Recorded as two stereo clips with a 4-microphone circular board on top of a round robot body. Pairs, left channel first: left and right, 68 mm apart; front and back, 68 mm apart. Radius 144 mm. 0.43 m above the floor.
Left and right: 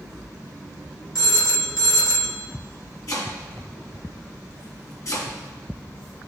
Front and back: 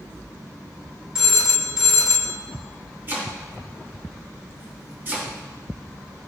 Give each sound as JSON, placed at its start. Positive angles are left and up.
{"t": 1.1, "sound": "a phone ringing", "azimuth_deg": 100, "distance_m": 1.5}
{"t": 3.1, "sound": "chopping", "azimuth_deg": 125, "distance_m": 3.0}